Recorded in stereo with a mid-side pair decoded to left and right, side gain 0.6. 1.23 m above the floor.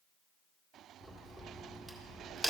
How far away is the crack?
About 1.6 m.